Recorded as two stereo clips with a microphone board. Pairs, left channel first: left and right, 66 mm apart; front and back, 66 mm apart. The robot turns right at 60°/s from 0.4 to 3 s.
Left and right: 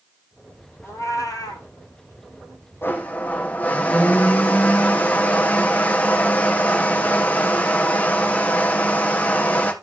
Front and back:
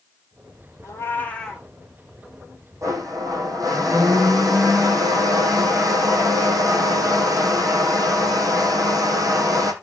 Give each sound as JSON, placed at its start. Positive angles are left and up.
{"t": 0.8, "sound": "a cat meowing", "azimuth_deg": 40, "distance_m": 2.0}
{"t": 2.8, "sound": "a blender", "azimuth_deg": 145, "distance_m": 2.0}